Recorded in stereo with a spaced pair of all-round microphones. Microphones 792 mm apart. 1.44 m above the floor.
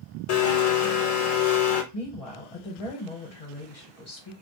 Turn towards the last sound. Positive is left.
turn(degrees=45)  # may be behind; listen again after turning